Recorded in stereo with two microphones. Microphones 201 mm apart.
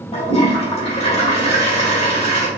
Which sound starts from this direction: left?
A toilet flushing, at 0.1 s.